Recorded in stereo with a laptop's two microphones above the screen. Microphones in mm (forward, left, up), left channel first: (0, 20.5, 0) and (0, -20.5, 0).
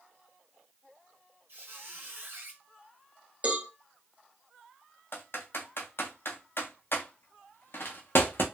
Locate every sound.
1.5 s a squeak: 60° right (ahead or behind), 1.6 m
3.4 s a cowbell: 30° right (ahead or behind), 0.8 m
5.1 s typing on a keyboard: 65° left (ahead or behind), 0.7 m